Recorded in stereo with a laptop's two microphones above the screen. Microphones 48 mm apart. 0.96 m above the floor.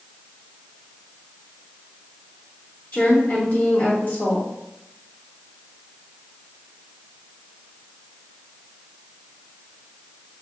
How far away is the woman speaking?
About 1.9 m.